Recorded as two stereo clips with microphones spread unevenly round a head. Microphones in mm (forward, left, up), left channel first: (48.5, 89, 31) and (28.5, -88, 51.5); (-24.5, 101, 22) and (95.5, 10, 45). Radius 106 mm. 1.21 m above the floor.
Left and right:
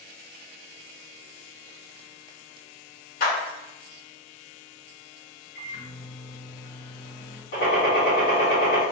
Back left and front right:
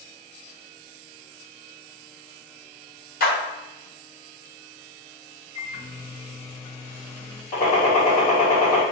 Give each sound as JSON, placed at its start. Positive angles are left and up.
{"t": 3.2, "sound": "a clap", "azimuth_deg": 130, "distance_m": 1.9}
{"t": 5.5, "sound": "a microwave", "azimuth_deg": 85, "distance_m": 1.7}
{"t": 7.5, "sound": "a gunshot", "azimuth_deg": 110, "distance_m": 1.8}